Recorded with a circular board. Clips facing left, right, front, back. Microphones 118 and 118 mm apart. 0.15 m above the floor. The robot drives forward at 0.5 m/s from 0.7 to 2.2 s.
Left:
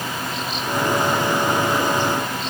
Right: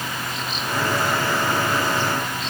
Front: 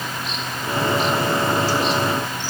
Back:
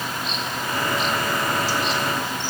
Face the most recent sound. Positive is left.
No sound to turn to.